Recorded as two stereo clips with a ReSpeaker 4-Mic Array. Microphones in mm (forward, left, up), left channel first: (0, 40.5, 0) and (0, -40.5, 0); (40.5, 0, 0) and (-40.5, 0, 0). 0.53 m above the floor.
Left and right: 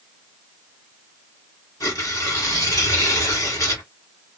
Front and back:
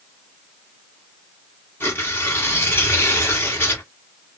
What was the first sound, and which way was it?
Tearing paper, 55° left.